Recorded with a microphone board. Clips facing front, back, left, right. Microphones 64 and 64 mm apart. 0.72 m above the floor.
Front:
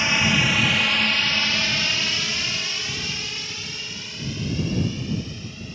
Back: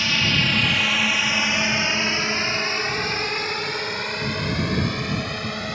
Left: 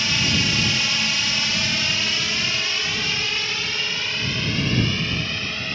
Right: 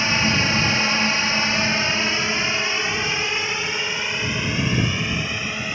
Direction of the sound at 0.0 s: 55° right.